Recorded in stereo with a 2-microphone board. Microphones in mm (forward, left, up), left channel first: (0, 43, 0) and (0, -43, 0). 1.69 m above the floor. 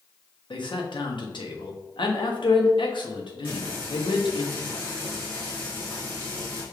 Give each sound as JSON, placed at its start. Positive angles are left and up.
{"t": 0.5, "sound": "a man speaking", "side_deg": 70, "distance_m": 0.9}
{"t": 3.4, "sound": "frying", "side_deg": 25, "distance_m": 1.8}